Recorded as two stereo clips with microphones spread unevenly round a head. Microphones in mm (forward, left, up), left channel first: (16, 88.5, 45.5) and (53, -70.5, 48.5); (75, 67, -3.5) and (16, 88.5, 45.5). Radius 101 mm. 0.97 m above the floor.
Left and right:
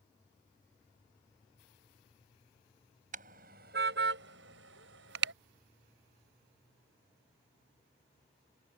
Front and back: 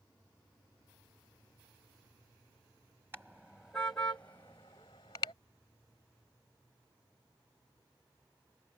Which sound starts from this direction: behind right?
A car horn, at 3.1 s.